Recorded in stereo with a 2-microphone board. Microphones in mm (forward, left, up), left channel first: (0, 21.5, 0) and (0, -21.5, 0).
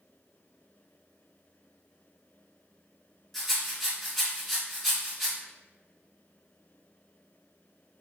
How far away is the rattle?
About 1.9 m.